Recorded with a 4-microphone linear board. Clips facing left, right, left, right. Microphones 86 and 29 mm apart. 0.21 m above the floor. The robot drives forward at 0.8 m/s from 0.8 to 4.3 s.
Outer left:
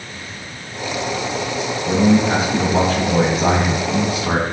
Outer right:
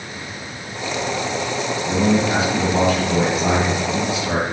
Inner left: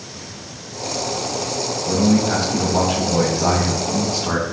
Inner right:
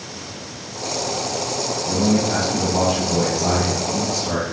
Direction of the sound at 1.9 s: 30° left (ahead or behind).